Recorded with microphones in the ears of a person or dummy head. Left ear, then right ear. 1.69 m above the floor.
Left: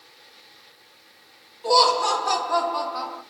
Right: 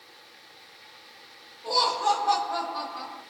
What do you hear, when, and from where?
1.6 s laughter: 80° left, 1.1 m